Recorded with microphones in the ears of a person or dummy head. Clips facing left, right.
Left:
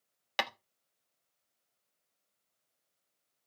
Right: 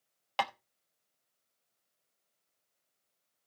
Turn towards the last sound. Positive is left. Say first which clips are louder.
# right 3 dB
turn(degrees=25)  # may be behind; listen again after turning